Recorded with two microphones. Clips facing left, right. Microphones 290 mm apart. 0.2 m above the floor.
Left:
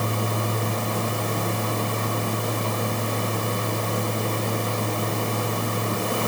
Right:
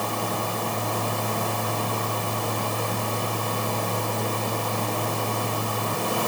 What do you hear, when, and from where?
Only background noise.